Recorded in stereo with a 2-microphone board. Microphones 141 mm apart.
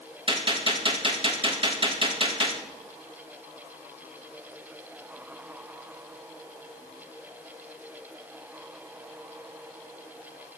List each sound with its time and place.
0.3 s a gunshot: 35° right (ahead or behind), 1.7 m